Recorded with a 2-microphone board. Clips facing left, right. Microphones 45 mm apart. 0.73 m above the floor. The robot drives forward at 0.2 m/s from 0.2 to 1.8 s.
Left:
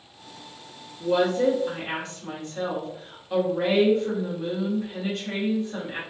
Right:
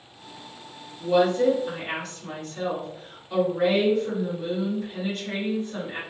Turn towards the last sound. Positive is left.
turn(degrees=20)  # may be behind; listen again after turning